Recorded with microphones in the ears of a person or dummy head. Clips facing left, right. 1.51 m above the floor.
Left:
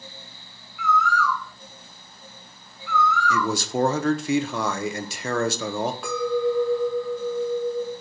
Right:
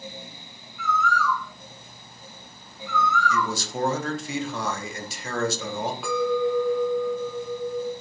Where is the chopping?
No chopping in this recording.